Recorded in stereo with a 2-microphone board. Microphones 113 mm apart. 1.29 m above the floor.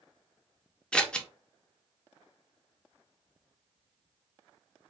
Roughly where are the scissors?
Centre.